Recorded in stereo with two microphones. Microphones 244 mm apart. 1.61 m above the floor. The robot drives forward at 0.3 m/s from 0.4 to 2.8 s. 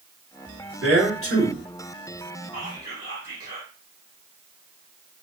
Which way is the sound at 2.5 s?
35° right (ahead or behind).